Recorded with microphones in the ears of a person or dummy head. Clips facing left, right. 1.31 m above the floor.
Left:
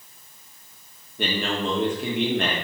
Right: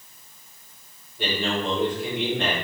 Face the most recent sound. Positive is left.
turn(degrees=45)  # may be behind; listen again after turning